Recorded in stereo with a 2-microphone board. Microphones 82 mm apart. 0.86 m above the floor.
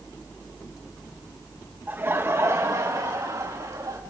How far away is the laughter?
About 0.9 m.